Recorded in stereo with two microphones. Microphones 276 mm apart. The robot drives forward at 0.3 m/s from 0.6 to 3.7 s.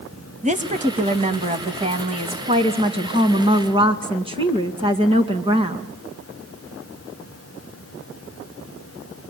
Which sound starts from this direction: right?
A woman speaking, at 0.4 s.